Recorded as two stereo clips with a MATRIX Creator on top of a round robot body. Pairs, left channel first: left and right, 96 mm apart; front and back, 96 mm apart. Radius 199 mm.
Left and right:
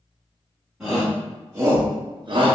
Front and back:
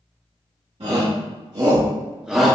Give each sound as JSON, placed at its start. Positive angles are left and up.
{"t": 0.8, "sound": "a shout", "azimuth_deg": -170, "distance_m": 1.9}